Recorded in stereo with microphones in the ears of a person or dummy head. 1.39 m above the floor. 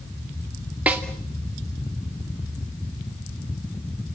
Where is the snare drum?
10° right (ahead or behind), 2.5 m.